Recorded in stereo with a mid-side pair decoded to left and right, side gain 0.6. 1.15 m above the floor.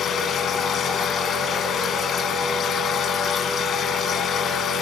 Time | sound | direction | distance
0.0 | a machine running | 40° left | 3.5 m